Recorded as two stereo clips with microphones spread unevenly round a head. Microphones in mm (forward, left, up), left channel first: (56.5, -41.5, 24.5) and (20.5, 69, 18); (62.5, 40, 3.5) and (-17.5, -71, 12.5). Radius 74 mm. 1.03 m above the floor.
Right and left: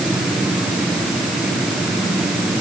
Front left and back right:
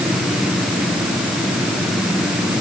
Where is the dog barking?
No dog barking in this recording.